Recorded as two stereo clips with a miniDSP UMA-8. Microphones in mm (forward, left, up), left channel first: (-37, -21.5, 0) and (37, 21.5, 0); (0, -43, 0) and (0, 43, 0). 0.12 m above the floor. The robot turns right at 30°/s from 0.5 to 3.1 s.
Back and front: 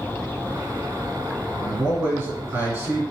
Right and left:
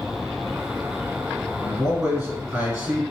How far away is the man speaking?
About 1.6 m.